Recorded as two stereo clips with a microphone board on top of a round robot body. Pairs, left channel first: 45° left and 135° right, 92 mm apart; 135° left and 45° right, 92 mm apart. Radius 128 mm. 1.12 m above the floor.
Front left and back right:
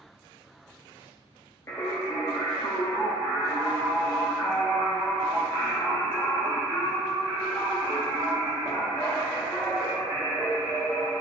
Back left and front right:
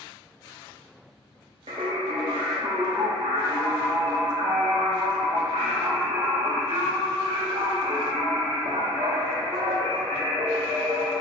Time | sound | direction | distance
1.7 | singing | 15° right | 0.6 m